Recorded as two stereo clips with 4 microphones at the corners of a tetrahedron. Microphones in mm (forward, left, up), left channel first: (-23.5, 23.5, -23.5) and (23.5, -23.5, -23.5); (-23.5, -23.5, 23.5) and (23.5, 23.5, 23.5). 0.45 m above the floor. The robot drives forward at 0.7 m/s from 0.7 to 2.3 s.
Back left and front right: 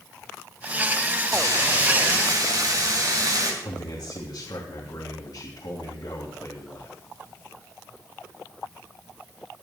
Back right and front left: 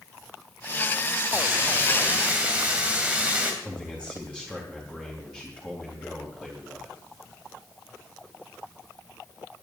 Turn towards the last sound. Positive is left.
turn(degrees=125)